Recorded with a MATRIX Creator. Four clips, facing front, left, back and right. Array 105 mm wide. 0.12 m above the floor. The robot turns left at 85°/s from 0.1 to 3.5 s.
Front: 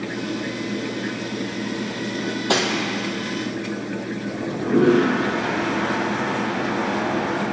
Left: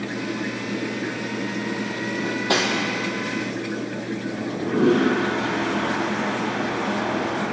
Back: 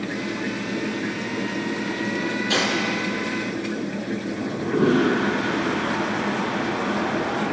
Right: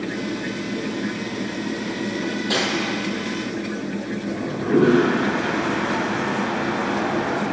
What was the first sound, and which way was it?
Cutlery clinking, 60° left.